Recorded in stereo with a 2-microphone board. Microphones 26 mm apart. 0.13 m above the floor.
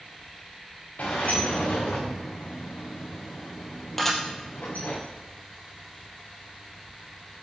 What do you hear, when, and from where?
1.0 s a sliding door: 75° left (ahead or behind), 4 m
4.0 s dishes clattering: 10° left (ahead or behind), 3 m